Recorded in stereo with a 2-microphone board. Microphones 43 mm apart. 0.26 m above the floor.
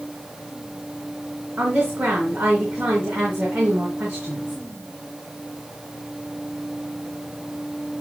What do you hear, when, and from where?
1.6 s a woman speaking: 60° right (ahead or behind), 3 m